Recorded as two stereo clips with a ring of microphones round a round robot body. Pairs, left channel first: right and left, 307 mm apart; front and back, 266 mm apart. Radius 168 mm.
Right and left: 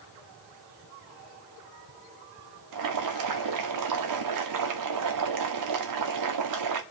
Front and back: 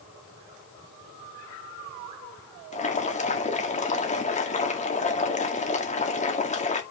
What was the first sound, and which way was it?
Boiling, 65° left.